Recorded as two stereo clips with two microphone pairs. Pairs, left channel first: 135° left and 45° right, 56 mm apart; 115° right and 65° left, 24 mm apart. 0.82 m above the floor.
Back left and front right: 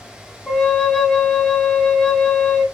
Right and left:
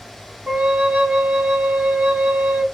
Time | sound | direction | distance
0.5 | a flute | 50° left | 1.4 m